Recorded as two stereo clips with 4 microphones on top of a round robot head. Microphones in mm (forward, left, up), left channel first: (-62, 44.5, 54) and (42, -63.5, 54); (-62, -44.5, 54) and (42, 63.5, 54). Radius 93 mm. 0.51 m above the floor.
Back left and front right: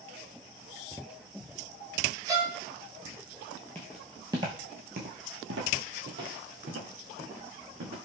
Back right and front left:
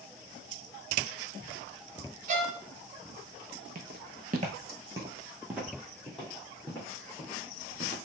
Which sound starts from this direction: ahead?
A violin, at 2.3 s.